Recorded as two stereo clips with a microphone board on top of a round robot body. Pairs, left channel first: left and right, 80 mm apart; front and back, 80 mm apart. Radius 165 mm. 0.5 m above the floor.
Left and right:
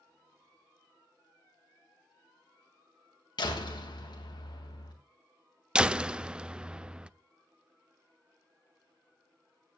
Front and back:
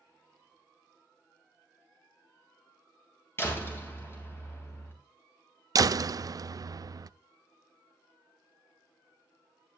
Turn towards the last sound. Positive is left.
turn(degrees=-165)